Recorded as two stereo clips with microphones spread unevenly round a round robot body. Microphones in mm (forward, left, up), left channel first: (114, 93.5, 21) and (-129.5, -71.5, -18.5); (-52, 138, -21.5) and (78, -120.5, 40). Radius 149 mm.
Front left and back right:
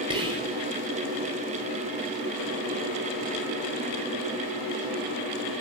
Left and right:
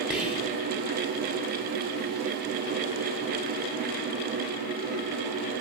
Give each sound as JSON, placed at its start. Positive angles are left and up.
{"t": 0.1, "sound": "whispering", "azimuth_deg": -175, "distance_m": 0.7}